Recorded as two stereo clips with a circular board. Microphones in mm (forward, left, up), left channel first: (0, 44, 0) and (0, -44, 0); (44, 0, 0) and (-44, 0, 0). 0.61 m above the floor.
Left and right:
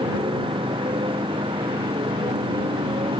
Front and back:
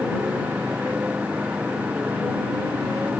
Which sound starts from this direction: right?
A motorcycle, at 0.0 s.